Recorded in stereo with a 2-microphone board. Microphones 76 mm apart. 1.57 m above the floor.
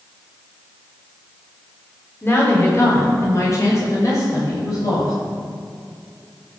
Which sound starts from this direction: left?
A woman speaking, at 2.2 s.